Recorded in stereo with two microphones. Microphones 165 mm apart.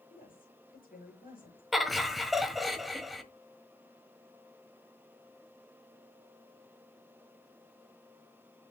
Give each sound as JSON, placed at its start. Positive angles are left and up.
{"t": 0.1, "sound": "a woman speaking", "side_deg": 55, "distance_m": 5.5}
{"t": 1.7, "sound": "laughter", "side_deg": 0, "distance_m": 1.1}